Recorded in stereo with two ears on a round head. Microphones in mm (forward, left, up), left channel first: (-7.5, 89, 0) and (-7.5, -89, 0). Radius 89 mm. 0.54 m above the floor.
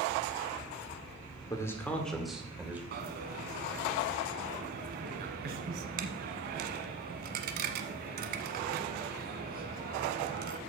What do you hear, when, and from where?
1.5 s a man speaking: 20° left (ahead or behind), 1.8 m; by 2.8 s 10° right (ahead or behind), 2.5 m
2.9 s a dropped coin: 50° right (ahead or behind), 1.1 m